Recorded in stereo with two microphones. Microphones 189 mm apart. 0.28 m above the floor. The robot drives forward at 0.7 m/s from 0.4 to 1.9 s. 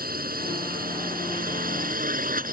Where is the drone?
50° right (ahead or behind).